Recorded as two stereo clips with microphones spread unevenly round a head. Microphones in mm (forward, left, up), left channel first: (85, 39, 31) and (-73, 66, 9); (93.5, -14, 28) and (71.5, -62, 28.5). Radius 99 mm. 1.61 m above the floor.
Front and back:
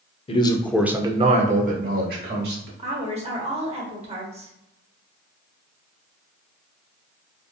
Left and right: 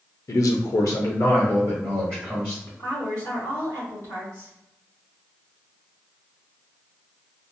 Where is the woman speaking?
120° left, 1.2 m.